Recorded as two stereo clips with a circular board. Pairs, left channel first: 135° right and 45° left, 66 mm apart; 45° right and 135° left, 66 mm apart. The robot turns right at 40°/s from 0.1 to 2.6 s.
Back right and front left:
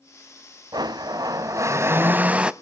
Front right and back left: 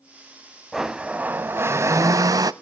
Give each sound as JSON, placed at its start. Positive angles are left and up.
{"t": 0.7, "sound": "a blender", "azimuth_deg": 50, "distance_m": 0.6}